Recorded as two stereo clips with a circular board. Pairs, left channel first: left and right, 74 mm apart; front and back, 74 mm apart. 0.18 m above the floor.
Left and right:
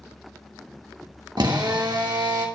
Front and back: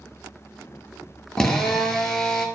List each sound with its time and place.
1.4 s a drill: 80° right, 1.5 m